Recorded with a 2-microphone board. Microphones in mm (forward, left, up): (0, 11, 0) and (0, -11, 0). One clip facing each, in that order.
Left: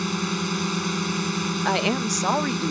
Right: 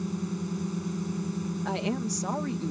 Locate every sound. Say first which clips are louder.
0.0 s a drone: left 7 dB; 70° left (ahead or behind)
1.6 s a woman speaking: left 8 dB; 50° left (ahead or behind)